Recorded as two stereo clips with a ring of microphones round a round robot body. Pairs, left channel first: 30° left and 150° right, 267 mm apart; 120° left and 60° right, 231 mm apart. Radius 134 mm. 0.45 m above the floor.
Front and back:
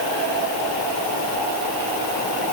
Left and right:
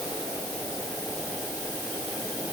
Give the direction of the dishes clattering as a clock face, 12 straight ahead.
I don't hear dishes clattering.